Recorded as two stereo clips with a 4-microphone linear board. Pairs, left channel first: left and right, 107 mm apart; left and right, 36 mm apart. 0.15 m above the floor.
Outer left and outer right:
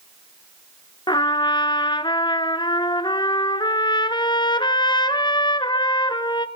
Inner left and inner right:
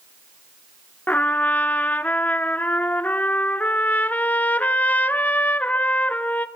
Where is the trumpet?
45° left (ahead or behind), 1.2 m.